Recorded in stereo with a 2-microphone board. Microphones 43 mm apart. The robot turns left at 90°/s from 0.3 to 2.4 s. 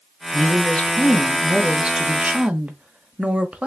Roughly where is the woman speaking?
Left.